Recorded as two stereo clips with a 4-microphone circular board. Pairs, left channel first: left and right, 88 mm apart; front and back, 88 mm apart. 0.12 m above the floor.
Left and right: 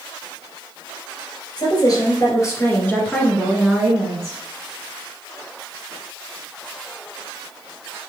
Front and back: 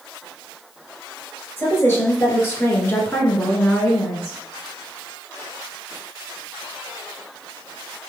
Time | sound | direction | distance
1.6 | a woman speaking | 65° left | 1.9 m